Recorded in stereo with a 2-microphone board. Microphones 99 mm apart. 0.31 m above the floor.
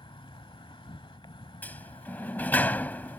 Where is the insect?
60° left (ahead or behind).